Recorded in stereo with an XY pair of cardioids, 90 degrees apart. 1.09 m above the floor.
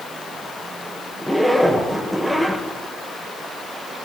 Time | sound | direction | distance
1.2 | a zipper | 10° left | 4 m